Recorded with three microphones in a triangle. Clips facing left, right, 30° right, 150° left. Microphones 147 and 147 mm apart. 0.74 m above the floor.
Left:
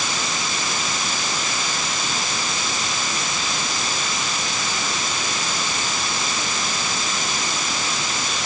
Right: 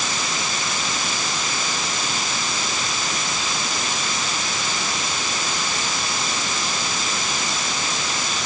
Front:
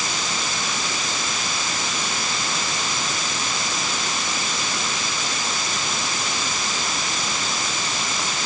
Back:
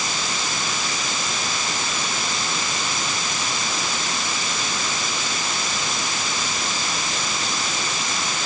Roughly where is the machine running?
I don't hear a machine running.